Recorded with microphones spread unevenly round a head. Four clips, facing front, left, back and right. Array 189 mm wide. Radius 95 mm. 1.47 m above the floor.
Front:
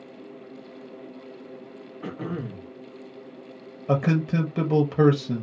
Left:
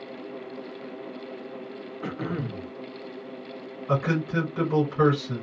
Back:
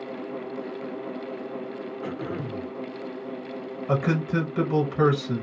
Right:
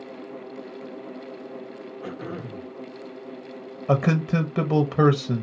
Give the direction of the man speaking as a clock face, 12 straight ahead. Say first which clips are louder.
Right 3 dB, front 2 dB; 2 o'clock.